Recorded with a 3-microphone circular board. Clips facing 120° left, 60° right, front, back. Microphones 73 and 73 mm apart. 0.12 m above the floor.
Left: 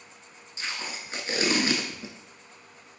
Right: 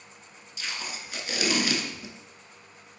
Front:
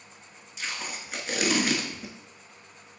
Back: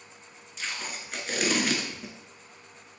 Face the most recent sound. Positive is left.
turn(degrees=85)